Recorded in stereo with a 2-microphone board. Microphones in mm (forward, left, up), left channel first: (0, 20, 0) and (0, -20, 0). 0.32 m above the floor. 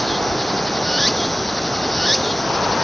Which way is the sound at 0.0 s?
Centre (ahead or behind).